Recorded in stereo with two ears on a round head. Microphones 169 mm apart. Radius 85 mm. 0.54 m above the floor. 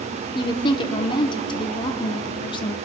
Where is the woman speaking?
25° left (ahead or behind), 1.2 m.